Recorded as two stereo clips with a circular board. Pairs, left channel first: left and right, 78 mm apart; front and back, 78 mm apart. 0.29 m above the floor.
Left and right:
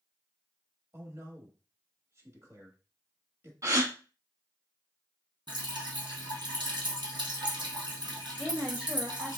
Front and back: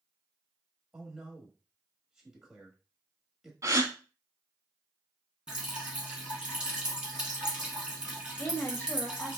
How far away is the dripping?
About 2.0 m.